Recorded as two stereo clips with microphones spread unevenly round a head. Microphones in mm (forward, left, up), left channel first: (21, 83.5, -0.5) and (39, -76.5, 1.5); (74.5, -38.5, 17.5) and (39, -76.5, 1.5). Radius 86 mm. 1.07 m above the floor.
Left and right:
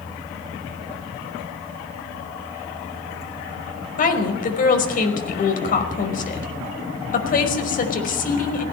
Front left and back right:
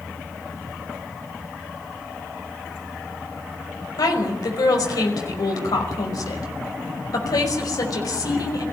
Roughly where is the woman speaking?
Ahead left.